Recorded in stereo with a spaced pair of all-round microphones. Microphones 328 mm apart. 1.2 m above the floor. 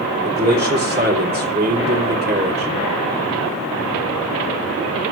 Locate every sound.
0.2 s a man speaking: 30° right (ahead or behind), 2.5 m